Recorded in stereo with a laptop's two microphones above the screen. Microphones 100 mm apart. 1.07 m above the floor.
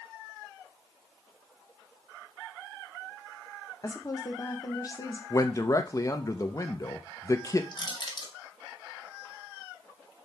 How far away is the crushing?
About 1.2 m.